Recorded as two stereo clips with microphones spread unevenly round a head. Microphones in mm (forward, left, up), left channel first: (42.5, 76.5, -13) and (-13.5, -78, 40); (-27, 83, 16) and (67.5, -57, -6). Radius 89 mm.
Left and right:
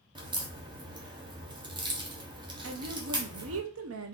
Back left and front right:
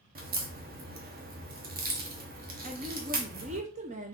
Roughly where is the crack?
Ahead right.